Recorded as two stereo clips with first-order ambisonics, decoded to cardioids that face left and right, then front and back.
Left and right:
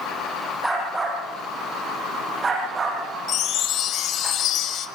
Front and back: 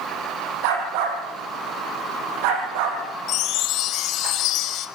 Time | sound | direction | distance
0.6 | a dog barking | straight behind | 6 m
3.3 | a chime | 40° left | 1.5 m